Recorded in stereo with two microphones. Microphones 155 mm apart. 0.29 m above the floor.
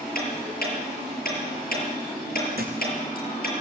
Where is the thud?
75° right (ahead or behind), 3.5 m.